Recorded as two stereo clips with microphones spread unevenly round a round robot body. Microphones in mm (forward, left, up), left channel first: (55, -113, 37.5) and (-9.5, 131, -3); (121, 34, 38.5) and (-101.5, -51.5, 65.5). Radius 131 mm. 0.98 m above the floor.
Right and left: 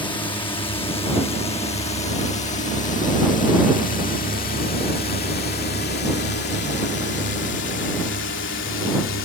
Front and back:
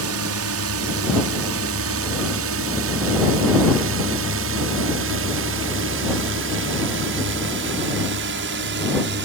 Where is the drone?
150° right; by 9.3 s 120° right.